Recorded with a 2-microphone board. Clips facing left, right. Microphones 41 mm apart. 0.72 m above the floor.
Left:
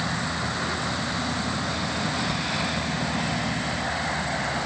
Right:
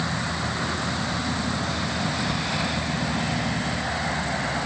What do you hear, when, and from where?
Only background noise.